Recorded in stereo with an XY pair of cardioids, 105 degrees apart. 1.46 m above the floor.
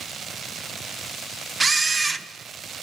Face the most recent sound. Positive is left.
turn(degrees=-25)